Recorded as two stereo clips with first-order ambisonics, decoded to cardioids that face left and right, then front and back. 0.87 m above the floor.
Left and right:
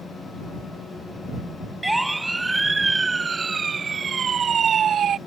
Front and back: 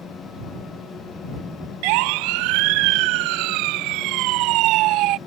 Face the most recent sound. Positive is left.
turn(degrees=-145)